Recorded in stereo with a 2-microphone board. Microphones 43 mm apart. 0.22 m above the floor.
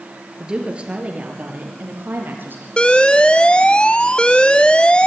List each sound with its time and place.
0.4 s a woman speaking: 15° right (ahead or behind), 4 m; by 2.7 s 50° right (ahead or behind), 5.5 m
2.8 s an alarm: 25° left (ahead or behind), 0.7 m